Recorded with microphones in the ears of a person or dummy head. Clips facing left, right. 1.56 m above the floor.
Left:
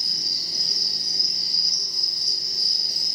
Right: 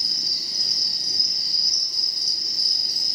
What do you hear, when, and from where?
0.0 s an insect: 80° right, 3.5 m